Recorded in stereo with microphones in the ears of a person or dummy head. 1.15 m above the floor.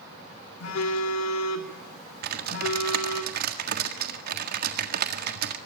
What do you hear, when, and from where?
0.6 s a phone buzzing: 80° left, 3.5 m
2.2 s typing on a keyboard: 60° right (ahead or behind), 1.6 m